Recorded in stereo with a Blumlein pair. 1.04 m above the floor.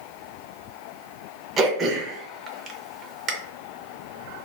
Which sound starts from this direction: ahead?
Throat clearing, at 1.6 s.